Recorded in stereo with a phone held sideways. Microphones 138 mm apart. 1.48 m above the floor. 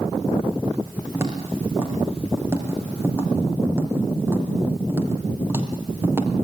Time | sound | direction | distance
1.1 | footsteps | 20° right (ahead or behind) | 7 m